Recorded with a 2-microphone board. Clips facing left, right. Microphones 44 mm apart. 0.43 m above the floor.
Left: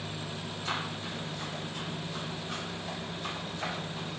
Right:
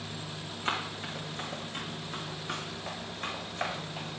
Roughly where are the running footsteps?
Right.